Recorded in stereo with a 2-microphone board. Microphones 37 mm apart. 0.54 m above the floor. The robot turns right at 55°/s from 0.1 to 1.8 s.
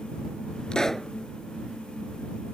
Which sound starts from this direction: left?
A pop, at 0.7 s.